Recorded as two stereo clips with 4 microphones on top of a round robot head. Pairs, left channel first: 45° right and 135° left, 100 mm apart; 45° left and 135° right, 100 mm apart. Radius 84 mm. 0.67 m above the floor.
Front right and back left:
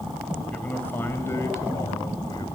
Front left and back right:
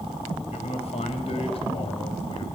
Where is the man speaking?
30° left, 4 m; by 2.5 s 5° left, 4 m.